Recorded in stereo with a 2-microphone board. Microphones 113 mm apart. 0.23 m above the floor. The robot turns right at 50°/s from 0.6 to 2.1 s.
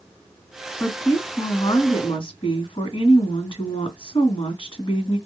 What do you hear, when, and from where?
0.8 s a woman speaking: 5° left, 1.9 m; by 5.2 s 70° left, 1.9 m